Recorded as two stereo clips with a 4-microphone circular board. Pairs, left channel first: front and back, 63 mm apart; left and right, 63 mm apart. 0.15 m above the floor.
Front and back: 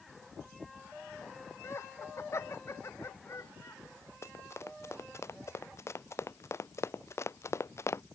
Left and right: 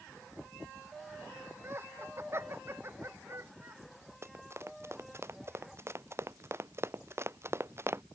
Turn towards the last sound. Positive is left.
turn(degrees=-45)